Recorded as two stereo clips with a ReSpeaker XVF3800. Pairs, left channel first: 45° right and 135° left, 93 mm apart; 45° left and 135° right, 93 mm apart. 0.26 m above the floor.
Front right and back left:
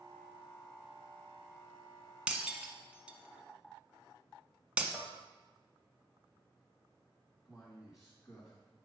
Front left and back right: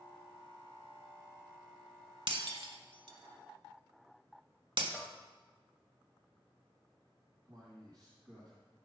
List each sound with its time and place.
2.3 s breaking glass: 145° right, 1.1 m
4.9 s a bell: 75° left, 1.4 m
7.5 s a man speaking: 135° right, 1.7 m